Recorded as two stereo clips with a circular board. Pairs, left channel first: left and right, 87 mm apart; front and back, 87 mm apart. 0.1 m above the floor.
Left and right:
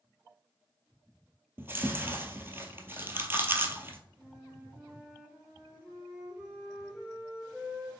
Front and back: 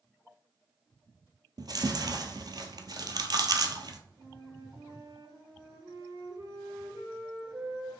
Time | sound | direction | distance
1.6 | chewing | 150° right | 0.6 m
4.2 | a flute | 160° right | 1.3 m